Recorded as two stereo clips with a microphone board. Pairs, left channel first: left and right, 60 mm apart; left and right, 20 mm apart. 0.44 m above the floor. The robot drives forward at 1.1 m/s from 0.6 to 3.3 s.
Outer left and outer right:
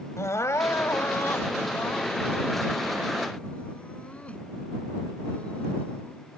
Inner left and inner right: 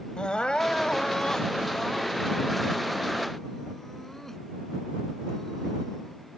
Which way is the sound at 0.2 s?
65° left (ahead or behind).